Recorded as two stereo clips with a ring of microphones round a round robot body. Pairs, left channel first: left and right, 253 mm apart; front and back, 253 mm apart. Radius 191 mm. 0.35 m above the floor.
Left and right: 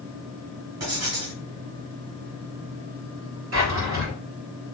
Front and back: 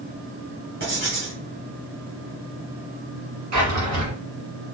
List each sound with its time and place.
0.8 s writing: 120° right, 1.6 m
3.5 s a drawer: 140° right, 1.4 m